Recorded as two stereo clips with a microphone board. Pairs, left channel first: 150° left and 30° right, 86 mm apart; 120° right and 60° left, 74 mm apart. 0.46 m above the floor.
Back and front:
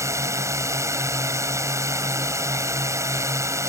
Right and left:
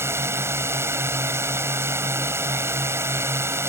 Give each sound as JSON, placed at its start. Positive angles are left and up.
{"t": 0.0, "sound": "a drone", "azimuth_deg": 15}